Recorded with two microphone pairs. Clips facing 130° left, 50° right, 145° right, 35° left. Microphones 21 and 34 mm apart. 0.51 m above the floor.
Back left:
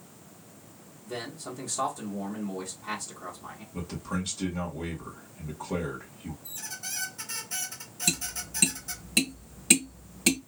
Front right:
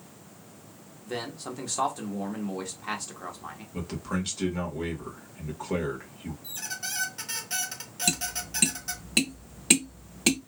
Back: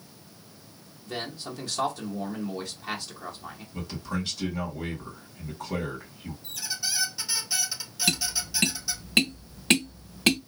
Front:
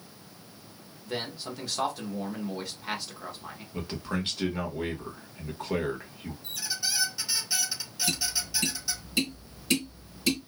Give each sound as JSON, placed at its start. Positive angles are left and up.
{"t": 1.1, "sound": "a man speaking", "azimuth_deg": -50, "distance_m": 1.3}
{"t": 3.7, "sound": "a man speaking", "azimuth_deg": -5, "distance_m": 1.6}
{"t": 6.4, "sound": "a squeak", "azimuth_deg": -50, "distance_m": 1.1}
{"t": 8.1, "sound": "tapping", "azimuth_deg": -120, "distance_m": 0.7}